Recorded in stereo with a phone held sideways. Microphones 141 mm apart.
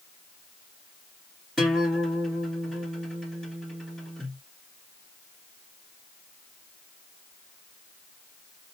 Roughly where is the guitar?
Centre.